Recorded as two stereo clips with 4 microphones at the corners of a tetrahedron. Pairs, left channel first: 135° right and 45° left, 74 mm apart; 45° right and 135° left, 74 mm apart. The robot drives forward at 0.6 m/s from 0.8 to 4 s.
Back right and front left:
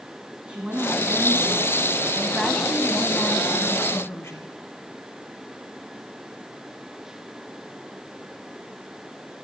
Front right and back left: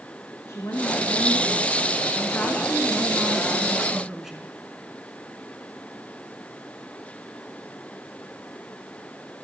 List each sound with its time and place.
0.5 s a woman speaking: 25° right, 1.8 m; by 4.5 s 145° right, 1.6 m